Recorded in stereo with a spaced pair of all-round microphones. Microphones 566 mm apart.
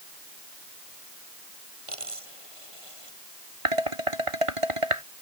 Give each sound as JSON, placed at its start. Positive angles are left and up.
{"t": 1.9, "sound": "a dropped coin", "side_deg": -65}
{"t": 3.6, "sound": "dishes clattering", "side_deg": -65}